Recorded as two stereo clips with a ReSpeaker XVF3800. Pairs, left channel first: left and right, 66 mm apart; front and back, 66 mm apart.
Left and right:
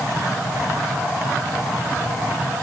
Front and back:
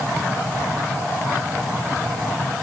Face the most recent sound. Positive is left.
No sound to turn to.